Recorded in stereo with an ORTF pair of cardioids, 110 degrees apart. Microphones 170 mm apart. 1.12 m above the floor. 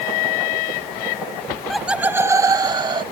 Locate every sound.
1.5 s laughter: 15° left; by 3.0 s 30° right